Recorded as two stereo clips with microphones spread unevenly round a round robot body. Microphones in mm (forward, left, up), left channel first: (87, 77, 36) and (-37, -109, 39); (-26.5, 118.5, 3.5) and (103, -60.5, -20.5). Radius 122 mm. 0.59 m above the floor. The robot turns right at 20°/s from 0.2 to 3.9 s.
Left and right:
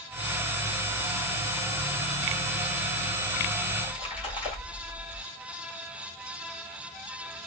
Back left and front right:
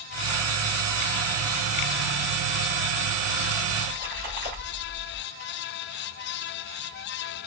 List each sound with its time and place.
3.7 s a splash: 15° right, 2.5 m; by 5.2 s 10° right, 2.5 m